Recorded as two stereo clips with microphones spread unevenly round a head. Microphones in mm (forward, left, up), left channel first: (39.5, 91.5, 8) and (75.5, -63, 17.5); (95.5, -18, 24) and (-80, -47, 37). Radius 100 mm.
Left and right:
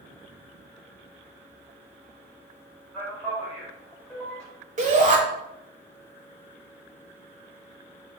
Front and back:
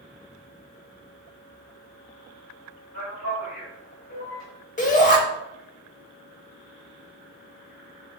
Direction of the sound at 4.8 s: 35° right.